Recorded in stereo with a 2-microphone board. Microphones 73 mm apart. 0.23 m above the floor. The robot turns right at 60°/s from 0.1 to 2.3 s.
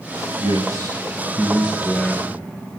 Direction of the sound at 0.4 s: 90° right.